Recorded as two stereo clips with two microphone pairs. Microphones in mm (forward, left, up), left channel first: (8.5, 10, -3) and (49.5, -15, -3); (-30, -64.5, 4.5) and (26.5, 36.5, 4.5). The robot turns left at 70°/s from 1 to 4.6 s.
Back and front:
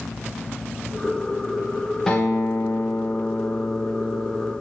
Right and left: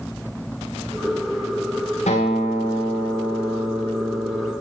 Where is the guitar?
130° right, 7 m; by 4.5 s 60° left, 7 m.